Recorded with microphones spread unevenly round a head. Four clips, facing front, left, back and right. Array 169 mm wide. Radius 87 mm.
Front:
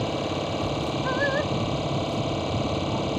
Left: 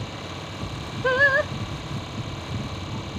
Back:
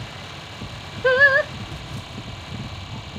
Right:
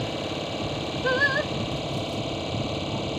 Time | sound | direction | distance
0.0 | an engine running | 20° right | ?
1.0 | singing | 175° left | ?